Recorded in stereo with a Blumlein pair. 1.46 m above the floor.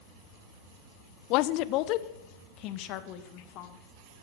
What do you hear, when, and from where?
1.3 s a woman speaking: 40° left, 0.6 m